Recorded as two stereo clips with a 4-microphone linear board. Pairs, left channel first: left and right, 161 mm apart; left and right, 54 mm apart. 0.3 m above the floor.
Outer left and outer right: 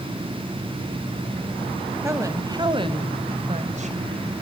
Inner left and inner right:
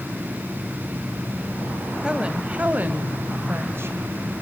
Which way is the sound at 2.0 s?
15° right (ahead or behind).